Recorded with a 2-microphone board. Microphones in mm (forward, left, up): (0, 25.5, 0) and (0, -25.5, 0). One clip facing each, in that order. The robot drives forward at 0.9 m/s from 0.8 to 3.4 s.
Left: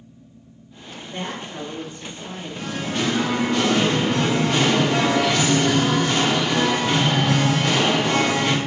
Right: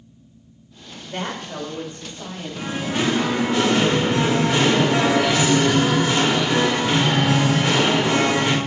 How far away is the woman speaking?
About 2.0 m.